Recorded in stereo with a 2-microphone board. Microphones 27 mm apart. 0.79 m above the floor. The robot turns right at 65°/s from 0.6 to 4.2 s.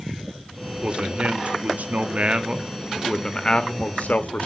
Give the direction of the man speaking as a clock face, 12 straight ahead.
5 o'clock.